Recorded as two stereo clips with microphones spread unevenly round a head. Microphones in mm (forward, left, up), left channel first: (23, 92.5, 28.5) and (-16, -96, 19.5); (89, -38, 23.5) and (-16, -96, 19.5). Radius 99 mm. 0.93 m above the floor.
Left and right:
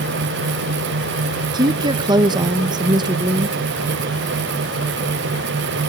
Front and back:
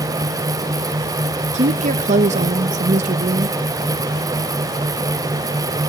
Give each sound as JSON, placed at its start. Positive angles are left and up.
{"t": 1.5, "sound": "a woman speaking", "azimuth_deg": -170, "distance_m": 0.5}